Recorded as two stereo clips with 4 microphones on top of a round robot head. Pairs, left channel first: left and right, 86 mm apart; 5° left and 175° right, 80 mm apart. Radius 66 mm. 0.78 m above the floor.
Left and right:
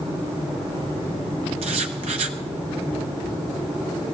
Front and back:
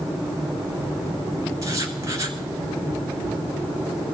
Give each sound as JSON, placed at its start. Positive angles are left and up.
{"t": 1.6, "sound": "writing", "azimuth_deg": -110, "distance_m": 0.8}